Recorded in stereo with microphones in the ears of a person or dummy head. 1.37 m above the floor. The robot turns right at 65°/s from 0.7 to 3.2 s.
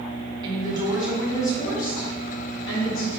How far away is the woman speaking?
About 1.0 m.